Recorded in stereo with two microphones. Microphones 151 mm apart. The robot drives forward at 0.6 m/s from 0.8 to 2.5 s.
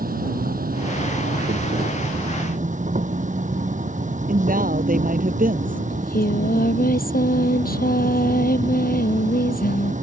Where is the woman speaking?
70° right (ahead or behind).